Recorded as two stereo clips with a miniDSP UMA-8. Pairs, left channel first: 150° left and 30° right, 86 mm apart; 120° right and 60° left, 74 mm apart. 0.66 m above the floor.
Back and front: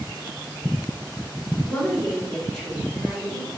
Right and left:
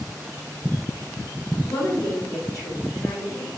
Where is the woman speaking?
155° right, 1.5 m; by 3.5 s 110° right, 1.8 m.